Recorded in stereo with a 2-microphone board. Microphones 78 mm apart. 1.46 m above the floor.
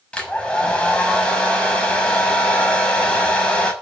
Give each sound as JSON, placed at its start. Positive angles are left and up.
{"t": 0.1, "sound": "a hair dryer", "side_deg": 15, "distance_m": 6.5}